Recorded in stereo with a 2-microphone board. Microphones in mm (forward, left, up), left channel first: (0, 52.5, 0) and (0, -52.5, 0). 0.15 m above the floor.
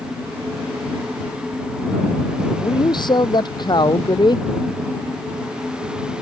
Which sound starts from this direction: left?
A man speaking, at 2.5 s.